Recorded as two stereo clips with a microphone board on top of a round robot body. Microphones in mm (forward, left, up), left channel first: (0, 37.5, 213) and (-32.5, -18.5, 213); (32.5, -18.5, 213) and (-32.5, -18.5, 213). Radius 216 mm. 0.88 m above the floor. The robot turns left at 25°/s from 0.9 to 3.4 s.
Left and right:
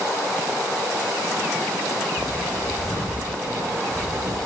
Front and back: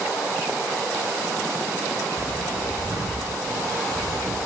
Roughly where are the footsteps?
Ahead.